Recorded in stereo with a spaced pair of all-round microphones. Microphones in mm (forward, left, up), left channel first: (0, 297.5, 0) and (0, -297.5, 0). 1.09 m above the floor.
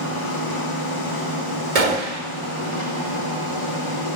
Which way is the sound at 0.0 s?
55° left (ahead or behind).